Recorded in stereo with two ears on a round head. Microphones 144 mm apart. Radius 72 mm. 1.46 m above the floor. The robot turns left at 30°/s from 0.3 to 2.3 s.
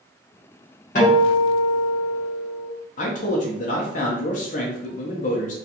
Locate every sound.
0.9 s a guitar: 70° left, 1.5 m; by 2.7 s 30° left, 1.5 m
3.0 s a man speaking: 50° left (ahead or behind), 0.6 m